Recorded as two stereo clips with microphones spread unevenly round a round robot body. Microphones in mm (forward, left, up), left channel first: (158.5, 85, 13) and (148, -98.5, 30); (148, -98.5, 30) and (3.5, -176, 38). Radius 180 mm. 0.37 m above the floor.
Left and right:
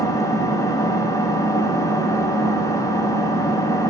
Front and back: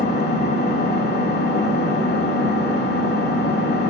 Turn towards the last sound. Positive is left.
turn(degrees=10)